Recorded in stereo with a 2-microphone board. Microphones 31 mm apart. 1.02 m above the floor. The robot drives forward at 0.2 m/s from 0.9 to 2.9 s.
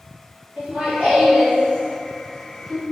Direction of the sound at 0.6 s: 50° right (ahead or behind).